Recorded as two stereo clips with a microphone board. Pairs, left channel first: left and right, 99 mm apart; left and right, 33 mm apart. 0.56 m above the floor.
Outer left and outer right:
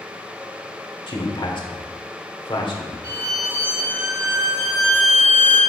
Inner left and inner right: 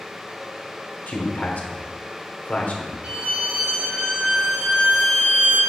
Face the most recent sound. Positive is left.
turn(degrees=-35)  # may be behind; listen again after turning